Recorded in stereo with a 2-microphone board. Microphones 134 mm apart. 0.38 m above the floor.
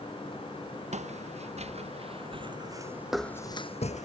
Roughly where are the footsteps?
Right.